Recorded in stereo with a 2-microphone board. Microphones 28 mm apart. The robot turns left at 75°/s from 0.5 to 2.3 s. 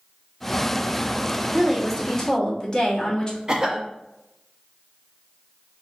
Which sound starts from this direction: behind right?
A woman speaking, at 1.5 s.